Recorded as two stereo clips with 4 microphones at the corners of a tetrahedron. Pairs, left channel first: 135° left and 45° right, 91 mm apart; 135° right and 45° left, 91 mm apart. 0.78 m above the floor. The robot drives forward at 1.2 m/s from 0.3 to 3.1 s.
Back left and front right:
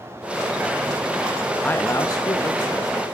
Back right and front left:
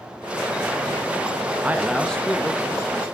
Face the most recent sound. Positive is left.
turn(degrees=170)